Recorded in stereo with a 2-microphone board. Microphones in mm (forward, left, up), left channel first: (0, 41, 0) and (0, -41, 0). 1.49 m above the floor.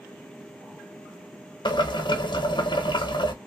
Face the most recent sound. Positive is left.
turn(degrees=65)  # may be behind; listen again after turning